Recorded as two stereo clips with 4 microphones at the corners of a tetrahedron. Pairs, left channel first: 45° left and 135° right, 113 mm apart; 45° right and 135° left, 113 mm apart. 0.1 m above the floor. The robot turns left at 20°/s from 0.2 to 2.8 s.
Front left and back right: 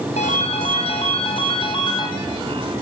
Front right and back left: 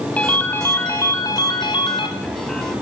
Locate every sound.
0.2 s a ringtone: 35° left, 3.5 m; by 2.1 s 5° right, 3.5 m